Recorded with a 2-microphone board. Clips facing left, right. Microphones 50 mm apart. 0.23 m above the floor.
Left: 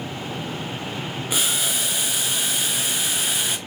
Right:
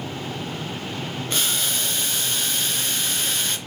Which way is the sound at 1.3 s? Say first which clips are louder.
Left 1 dB; 10° left (ahead or behind).